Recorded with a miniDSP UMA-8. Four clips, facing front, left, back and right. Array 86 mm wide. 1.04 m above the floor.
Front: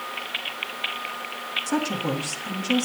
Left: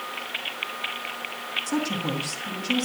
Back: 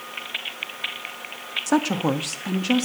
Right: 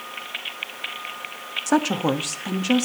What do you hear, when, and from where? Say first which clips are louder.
1.7 s a woman speaking: right 7 dB, back 5 dB; 120° right, 1.1 m; by 2.9 s 130° right, 1.7 m